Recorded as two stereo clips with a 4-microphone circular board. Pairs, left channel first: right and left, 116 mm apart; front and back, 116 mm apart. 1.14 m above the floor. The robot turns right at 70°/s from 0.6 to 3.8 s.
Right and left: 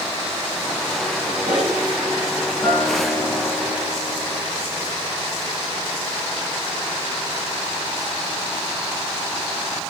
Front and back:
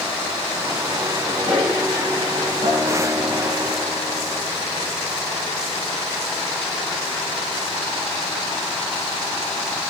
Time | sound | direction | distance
1.2 | a toilet flushing | 80° left | 5.5 m
2.6 | a guitar | straight behind | 4.5 m